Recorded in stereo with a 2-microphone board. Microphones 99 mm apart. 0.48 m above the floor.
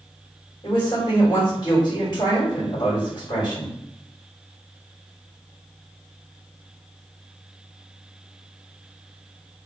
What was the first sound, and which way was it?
A woman speaking, 45° left (ahead or behind).